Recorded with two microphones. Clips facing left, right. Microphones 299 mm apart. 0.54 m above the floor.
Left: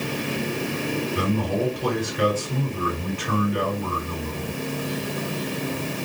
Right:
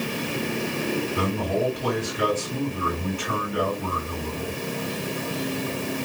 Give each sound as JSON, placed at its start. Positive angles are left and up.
{"t": 1.1, "sound": "a man speaking", "side_deg": 75, "distance_m": 2.5}